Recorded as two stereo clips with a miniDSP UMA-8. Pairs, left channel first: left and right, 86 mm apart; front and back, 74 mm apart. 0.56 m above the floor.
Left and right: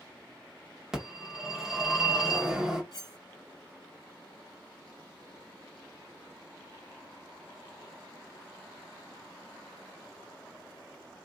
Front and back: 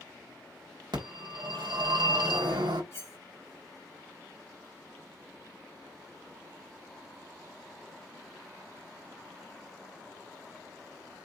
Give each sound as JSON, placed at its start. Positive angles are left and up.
{"t": 0.9, "sound": "a phone ringing", "azimuth_deg": -175, "distance_m": 1.8}
{"t": 2.9, "sound": "cutlery clinking", "azimuth_deg": 50, "distance_m": 1.1}